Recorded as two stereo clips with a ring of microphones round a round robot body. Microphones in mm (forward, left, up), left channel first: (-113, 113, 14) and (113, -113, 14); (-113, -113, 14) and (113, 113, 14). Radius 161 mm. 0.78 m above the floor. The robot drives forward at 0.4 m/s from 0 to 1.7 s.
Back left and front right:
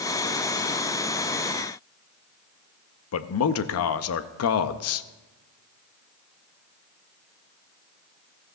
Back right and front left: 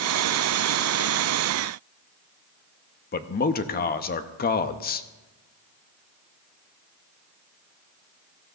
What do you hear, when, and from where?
3.1 s a man speaking: 170° left, 0.6 m